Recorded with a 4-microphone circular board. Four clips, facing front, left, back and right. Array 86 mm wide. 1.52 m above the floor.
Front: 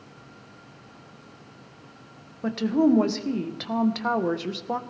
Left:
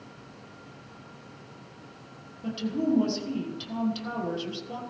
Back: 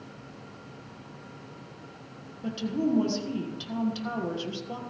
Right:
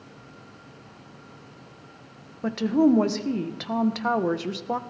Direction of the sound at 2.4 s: 50° right.